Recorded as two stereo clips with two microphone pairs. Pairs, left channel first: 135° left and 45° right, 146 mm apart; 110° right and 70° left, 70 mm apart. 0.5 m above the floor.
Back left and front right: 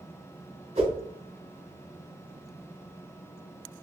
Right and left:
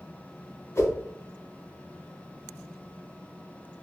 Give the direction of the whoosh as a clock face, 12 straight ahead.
3 o'clock.